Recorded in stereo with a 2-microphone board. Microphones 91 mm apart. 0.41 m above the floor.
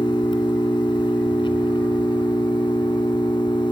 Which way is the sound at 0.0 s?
60° left (ahead or behind).